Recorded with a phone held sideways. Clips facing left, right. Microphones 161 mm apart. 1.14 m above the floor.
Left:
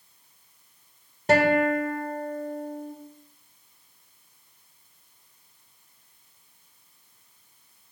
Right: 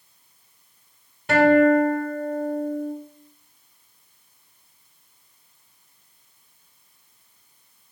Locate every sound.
1.3 s a guitar: 40° left (ahead or behind), 2 m